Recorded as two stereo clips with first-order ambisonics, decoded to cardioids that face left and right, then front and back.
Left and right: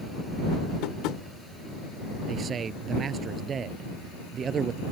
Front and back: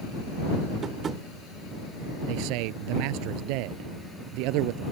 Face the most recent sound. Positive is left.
turn(degrees=-155)